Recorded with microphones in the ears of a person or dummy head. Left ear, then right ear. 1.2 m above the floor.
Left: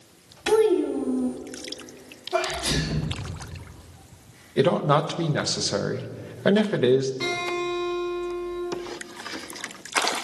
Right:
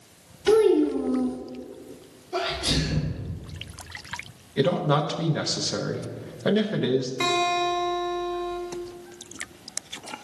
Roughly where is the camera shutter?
I don't hear a camera shutter.